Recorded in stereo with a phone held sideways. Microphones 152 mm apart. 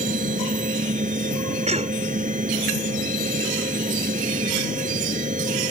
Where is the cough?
50° right (ahead or behind).